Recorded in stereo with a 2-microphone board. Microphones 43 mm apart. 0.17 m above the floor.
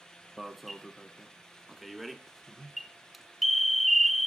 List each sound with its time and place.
0.4 s an alarm: centre (ahead or behind), 1.0 m